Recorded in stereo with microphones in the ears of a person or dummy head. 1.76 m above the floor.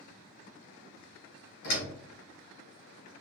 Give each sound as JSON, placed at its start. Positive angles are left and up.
{"t": 1.6, "sound": "a door slam", "side_deg": 55, "distance_m": 2.0}